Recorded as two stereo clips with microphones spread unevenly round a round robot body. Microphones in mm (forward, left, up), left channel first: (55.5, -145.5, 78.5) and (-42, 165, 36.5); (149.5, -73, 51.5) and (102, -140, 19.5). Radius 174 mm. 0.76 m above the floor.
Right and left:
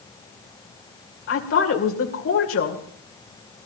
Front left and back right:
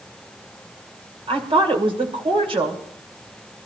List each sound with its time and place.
1.3 s a woman speaking: 125° right, 2.5 m